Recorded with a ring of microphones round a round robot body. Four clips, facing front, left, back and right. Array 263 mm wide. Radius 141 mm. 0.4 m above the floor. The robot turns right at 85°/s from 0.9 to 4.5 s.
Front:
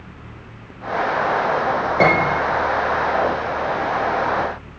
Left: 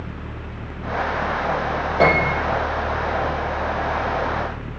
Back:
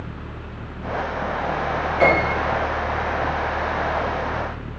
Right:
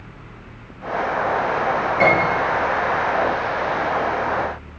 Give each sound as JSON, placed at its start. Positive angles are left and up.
{"t": 2.0, "sound": "a piano", "azimuth_deg": 25, "distance_m": 3.5}